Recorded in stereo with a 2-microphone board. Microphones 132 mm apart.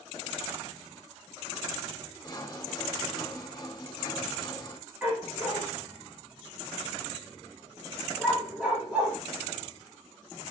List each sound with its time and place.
2.2 s sawing: 35° left (ahead or behind), 2.0 m
5.0 s a dog barking: 10° right (ahead or behind), 4.5 m